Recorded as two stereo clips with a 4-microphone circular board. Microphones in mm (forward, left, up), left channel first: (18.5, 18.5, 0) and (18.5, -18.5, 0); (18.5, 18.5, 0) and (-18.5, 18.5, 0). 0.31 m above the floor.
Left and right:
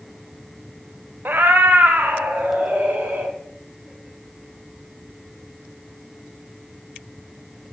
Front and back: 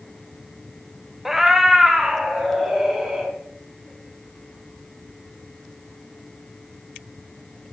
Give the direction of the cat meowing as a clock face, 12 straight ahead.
3 o'clock.